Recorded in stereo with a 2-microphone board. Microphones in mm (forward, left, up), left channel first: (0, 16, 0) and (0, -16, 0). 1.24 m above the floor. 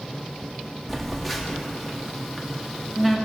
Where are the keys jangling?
No keys jangling in this recording.